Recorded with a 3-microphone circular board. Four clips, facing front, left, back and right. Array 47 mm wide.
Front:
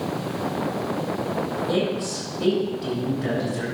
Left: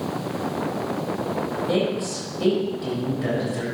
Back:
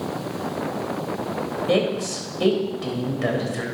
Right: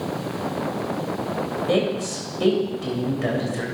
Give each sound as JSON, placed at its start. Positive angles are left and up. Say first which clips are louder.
{"t": 1.7, "sound": "a woman speaking", "louder": "right 2 dB, back 5 dB", "azimuth_deg": -155, "distance_m": 4.0}